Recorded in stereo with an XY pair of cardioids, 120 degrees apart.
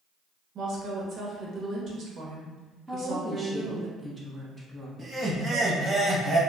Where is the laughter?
30° right, 0.8 m.